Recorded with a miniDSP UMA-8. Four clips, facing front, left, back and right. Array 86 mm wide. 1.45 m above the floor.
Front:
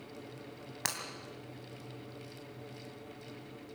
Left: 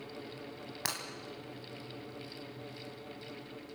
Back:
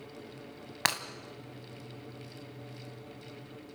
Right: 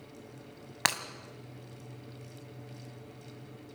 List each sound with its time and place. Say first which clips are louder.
0.8 s breaking glass: right 9 dB, back 8 dB; 125° right, 2 m